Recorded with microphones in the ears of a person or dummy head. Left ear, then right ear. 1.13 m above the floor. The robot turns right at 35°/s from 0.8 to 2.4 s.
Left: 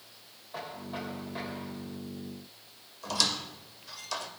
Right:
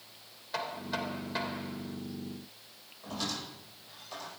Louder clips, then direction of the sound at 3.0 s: Left 8 dB; 60° left (ahead or behind).